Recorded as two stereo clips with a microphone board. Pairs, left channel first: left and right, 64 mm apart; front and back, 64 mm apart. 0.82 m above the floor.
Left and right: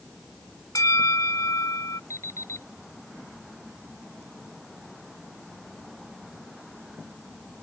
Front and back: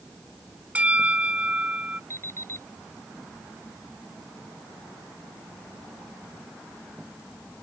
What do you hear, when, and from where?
0.8 s a bell: 115° left
2.1 s an alarm clock: 50° left